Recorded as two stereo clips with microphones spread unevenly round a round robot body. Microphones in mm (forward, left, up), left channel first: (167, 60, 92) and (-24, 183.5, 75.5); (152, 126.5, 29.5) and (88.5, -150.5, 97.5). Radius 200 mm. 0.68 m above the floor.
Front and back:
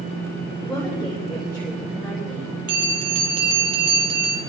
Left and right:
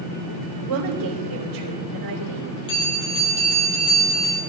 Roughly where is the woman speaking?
Behind right.